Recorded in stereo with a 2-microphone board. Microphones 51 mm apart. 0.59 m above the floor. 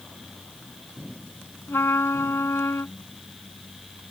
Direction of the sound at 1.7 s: 60° left (ahead or behind).